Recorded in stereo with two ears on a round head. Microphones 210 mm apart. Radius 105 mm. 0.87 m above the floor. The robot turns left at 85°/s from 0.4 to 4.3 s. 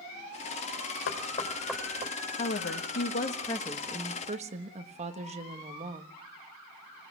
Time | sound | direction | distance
1.1 | knocking | 50° left (ahead or behind) | 3.5 m
2.4 | a woman speaking | 125° left | 1.3 m